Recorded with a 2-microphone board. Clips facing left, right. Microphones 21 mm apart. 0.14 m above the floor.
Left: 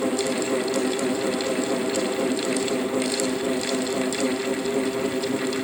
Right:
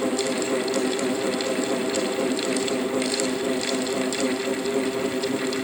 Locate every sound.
Only background noise.